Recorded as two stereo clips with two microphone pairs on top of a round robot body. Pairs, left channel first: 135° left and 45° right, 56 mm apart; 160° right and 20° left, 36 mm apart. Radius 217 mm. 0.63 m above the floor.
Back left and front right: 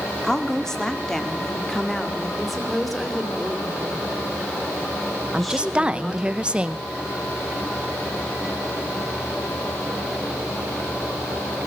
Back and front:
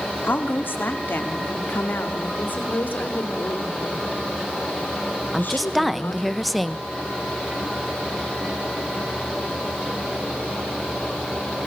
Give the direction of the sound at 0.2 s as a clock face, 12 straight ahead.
5 o'clock.